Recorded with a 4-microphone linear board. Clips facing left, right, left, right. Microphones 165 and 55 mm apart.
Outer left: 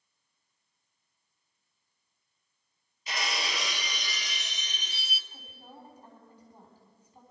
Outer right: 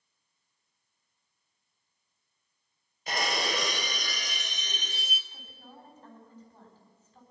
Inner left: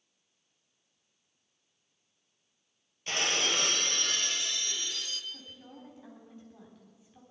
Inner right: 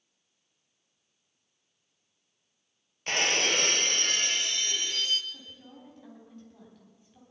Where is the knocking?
No knocking in this recording.